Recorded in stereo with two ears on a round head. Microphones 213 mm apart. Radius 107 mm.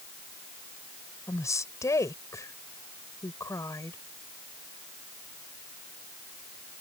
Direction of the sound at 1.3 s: 15° left (ahead or behind).